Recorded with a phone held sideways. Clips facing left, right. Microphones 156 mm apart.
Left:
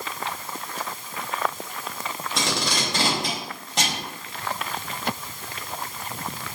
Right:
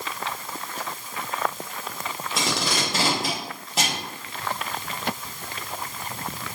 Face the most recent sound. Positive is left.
turn(degrees=-5)  # may be behind; listen again after turning